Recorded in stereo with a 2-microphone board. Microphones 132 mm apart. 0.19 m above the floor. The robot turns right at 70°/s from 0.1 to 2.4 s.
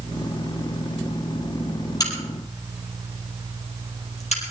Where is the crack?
25° left (ahead or behind), 5 m; by 4.5 s 55° left (ahead or behind), 5 m.